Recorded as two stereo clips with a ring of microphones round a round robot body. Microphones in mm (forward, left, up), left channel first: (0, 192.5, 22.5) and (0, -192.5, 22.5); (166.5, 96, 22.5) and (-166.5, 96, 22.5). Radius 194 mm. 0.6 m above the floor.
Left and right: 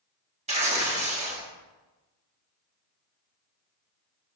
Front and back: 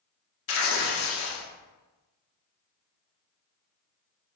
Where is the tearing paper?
25° right, 1.1 m.